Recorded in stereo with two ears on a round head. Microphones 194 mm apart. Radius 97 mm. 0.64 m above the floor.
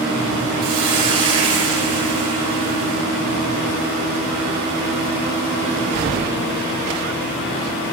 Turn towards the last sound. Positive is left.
turn(degrees=-30)  # may be behind; listen again after turning